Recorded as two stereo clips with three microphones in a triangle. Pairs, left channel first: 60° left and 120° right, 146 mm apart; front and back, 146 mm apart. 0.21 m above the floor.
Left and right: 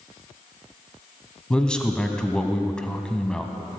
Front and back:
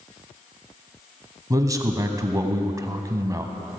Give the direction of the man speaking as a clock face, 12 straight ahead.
7 o'clock.